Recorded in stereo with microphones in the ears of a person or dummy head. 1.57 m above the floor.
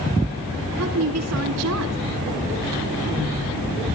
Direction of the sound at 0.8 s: 75° right (ahead or behind).